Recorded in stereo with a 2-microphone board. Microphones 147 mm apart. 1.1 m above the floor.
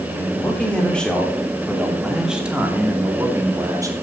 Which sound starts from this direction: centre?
A man speaking, at 0.2 s.